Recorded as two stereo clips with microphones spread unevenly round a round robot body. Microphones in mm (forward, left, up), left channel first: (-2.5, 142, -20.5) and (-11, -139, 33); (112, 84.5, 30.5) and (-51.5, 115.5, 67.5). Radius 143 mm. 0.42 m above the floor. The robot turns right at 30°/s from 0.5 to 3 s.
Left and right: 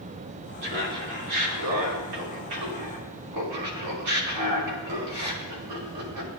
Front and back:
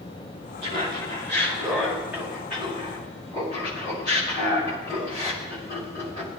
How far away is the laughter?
About 4.5 m.